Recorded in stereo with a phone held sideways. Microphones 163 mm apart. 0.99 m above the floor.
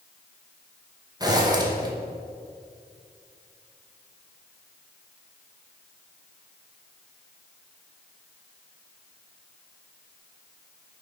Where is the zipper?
25° right (ahead or behind), 1.1 m.